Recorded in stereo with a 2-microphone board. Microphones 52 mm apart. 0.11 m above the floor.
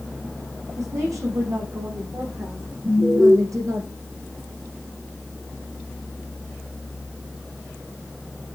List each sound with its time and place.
0.8 s a woman speaking: 80° right, 7 m; by 3.8 s 75° right (ahead or behind), 5.5 m
2.8 s an alarm: 50° right (ahead or behind), 6 m